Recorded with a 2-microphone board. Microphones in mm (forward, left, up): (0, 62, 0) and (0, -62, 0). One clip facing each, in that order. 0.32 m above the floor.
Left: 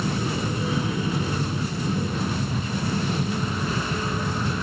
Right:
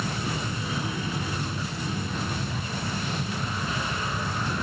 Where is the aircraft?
40° left (ahead or behind).